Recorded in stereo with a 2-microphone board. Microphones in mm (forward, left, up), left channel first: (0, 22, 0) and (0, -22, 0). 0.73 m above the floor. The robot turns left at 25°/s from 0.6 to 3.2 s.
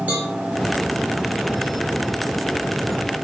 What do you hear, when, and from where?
0.1 s a cowbell: 40° right (ahead or behind), 1.1 m